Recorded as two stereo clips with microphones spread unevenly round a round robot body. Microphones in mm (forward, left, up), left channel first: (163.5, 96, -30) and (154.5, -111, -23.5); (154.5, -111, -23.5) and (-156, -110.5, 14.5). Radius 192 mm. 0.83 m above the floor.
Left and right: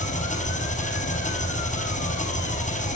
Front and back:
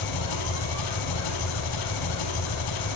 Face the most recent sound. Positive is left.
turn(degrees=35)